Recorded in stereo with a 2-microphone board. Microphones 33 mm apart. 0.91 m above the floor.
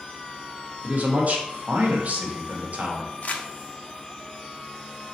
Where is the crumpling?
50° left (ahead or behind), 0.6 m.